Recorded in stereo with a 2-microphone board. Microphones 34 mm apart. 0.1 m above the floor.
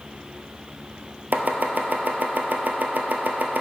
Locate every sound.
1.3 s chopping: 60° right (ahead or behind), 0.8 m